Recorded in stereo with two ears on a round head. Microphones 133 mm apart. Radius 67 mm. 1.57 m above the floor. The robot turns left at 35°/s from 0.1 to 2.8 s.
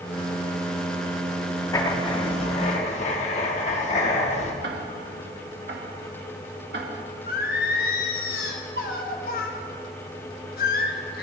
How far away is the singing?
About 1.3 m.